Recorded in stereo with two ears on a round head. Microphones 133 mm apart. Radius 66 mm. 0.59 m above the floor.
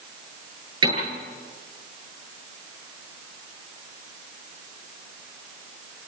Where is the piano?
35° right (ahead or behind), 9 m.